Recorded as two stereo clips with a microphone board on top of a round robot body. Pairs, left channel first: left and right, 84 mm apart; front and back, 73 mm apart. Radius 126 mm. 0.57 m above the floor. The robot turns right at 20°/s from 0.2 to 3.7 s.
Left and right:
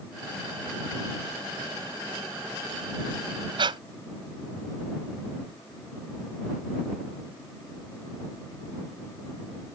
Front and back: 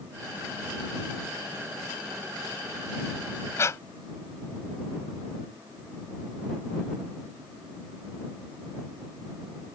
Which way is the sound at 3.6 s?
55° right.